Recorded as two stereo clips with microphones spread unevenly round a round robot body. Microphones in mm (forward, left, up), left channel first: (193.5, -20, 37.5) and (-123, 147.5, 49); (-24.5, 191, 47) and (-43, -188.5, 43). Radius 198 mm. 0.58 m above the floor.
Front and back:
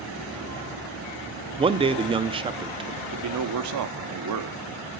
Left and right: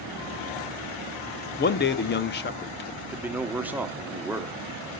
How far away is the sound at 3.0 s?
About 1.0 m.